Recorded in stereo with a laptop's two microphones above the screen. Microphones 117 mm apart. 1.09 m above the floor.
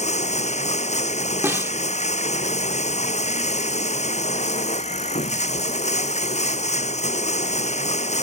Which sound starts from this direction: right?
A snare drum, at 1.4 s.